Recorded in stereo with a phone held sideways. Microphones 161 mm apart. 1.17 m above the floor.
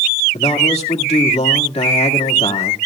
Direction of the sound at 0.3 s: 40° left (ahead or behind).